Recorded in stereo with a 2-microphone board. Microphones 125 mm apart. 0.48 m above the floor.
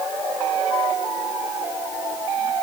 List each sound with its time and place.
Only background noise.